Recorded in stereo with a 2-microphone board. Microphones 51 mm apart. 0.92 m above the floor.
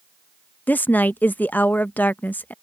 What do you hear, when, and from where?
0.7 s a woman speaking: 35° left (ahead or behind)